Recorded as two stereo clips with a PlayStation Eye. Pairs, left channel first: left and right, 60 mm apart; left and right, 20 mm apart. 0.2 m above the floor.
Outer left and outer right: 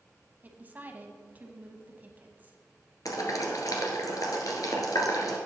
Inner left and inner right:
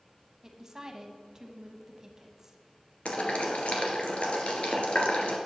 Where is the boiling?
75° left (ahead or behind), 1.9 m.